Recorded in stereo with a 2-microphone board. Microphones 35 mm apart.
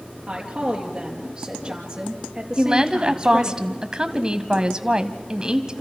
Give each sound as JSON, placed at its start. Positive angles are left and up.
{"t": 0.3, "sound": "a woman speaking", "side_deg": -20, "distance_m": 4.5}
{"t": 2.6, "sound": "a woman speaking", "side_deg": -25, "distance_m": 1.6}